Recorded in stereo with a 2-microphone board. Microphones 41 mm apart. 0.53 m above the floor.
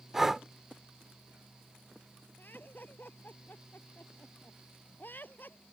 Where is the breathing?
10° right (ahead or behind).